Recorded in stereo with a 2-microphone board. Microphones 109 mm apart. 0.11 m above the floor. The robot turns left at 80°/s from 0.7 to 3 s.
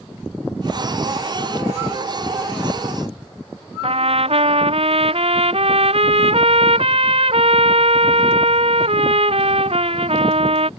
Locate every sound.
3.8 s a trumpet: 65° right (ahead or behind)